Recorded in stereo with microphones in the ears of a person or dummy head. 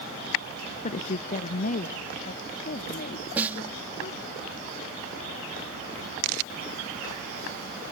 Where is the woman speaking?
35° left (ahead or behind); by 4.4 s 45° left (ahead or behind).